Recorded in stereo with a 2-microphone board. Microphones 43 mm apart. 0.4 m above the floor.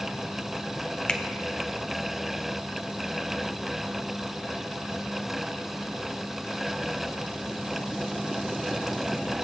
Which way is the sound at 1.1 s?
20° left (ahead or behind).